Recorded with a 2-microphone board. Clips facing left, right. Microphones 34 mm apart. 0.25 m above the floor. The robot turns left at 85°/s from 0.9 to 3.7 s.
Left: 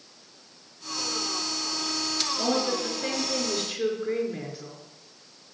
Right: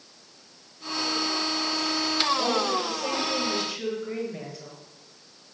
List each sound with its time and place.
2.4 s a woman speaking: 140° left, 4.5 m; by 4.8 s 30° left, 4.5 m